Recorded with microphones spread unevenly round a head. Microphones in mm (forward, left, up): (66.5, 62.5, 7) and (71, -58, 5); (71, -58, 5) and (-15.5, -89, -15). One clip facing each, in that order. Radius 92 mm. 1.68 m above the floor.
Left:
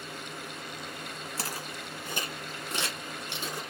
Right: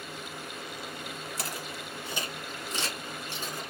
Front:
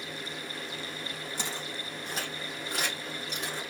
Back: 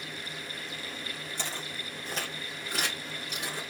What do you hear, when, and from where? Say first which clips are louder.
1.4 s footsteps: even, front 1 dB; 70° left, 1.9 m; by 3.6 s 110° left, 3 m